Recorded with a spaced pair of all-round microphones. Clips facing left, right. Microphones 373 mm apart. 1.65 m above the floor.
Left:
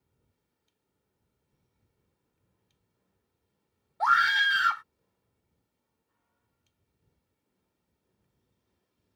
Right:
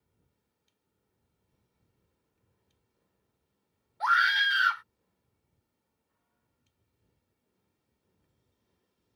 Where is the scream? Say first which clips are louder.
Left 3 dB; 60° left (ahead or behind).